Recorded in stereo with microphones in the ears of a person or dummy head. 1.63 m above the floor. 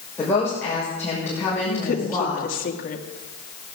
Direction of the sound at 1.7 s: 50° left (ahead or behind).